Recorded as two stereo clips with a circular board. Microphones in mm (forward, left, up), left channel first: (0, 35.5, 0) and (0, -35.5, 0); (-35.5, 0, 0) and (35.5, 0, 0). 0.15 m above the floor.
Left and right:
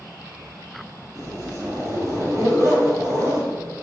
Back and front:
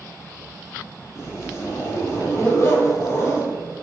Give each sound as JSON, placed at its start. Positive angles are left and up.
{"t": 1.1, "sound": "a zipper", "azimuth_deg": -130, "distance_m": 2.5}